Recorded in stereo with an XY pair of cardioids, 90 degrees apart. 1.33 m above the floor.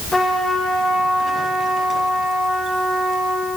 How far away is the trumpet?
About 2 m.